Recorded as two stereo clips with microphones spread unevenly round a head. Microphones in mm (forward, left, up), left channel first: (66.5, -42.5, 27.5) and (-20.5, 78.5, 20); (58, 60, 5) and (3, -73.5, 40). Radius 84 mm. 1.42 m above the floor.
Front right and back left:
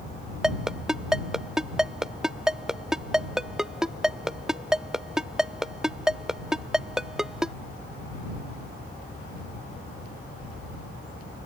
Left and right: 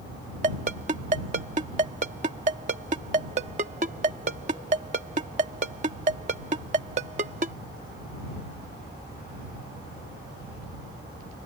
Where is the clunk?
I don't hear a clunk.